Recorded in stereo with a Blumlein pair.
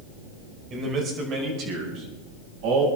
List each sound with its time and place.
0.7 s a man speaking: 25° right, 5 m; by 2.9 s 40° right, 7.5 m